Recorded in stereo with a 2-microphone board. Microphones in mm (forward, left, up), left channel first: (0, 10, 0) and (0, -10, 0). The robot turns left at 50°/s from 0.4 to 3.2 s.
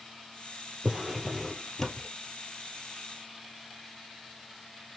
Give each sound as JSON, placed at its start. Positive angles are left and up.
{"t": 0.8, "sound": "a drawer", "azimuth_deg": -145, "distance_m": 1.3}